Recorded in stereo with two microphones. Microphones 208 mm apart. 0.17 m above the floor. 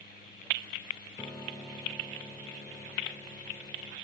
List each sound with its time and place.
1.2 s a piano: 15° left (ahead or behind), 6 m